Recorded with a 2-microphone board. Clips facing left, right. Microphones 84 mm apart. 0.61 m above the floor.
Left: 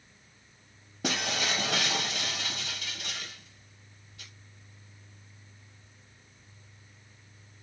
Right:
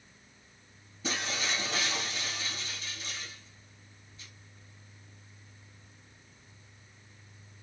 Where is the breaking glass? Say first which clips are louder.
Left 3 dB; 75° left (ahead or behind), 1.8 m.